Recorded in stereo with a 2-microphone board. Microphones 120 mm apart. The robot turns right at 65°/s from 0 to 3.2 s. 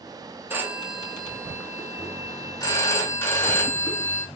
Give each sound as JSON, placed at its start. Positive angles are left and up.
{"t": 0.5, "sound": "a phone ringing", "azimuth_deg": -40, "distance_m": 0.9}